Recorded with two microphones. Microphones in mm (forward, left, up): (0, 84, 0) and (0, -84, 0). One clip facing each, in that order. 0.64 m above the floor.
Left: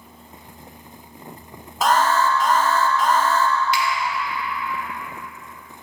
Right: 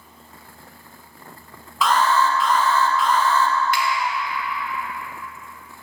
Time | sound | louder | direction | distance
1.8 | an alarm | even | 45° left (ahead or behind) | 0.6 m
3.7 | a finger snap | left 1 dB | 55° right (ahead or behind) | 0.8 m